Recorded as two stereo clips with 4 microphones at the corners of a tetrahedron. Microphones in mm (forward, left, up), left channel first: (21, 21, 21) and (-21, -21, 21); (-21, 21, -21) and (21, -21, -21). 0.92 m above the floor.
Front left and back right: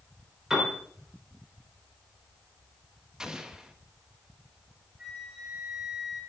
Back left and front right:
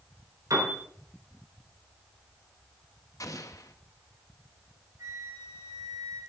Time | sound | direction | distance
0.5 | a piano | 55° right | 4 m
3.2 | an explosion | 145° left | 1.1 m
5.0 | a flute | 65° right | 5 m